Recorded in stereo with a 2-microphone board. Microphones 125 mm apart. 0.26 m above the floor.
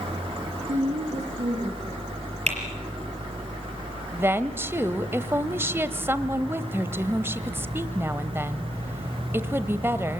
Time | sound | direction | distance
0.7 | a woman speaking | 65° right (ahead or behind) | 4.5 m
2.5 | typing on a keyboard | 60° right (ahead or behind) | 5 m
4.1 | a woman speaking | 20° right (ahead or behind) | 0.9 m